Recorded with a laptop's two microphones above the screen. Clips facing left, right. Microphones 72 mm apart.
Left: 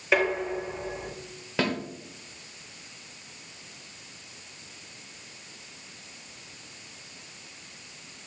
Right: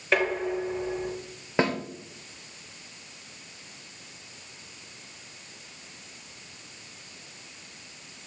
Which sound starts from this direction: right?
A snare drum, at 1.6 s.